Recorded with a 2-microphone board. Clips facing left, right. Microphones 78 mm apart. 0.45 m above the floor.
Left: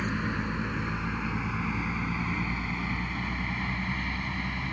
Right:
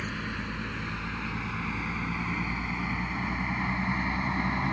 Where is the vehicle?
20° left (ahead or behind); by 4.7 s 35° right (ahead or behind).